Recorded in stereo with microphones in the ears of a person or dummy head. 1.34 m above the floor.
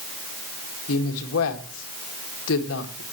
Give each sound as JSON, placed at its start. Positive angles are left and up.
{"t": 0.9, "sound": "a woman speaking", "side_deg": 75, "distance_m": 2.0}